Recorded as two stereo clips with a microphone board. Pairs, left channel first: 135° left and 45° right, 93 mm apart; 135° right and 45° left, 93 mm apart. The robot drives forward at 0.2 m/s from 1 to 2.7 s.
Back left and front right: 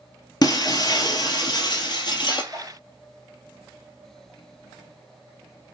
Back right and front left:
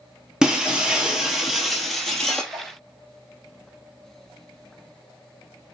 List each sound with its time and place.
0.4 s breaking glass: 125° left, 0.9 m; by 2.4 s 140° left, 1.1 m
2.5 s a whoosh: 80° left, 3 m